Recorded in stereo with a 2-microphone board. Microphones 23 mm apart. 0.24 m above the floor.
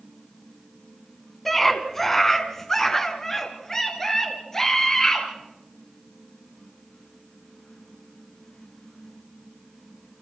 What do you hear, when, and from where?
1.4 s a scream: 10° left (ahead or behind), 1.9 m; by 5.3 s 25° left (ahead or behind), 4.5 m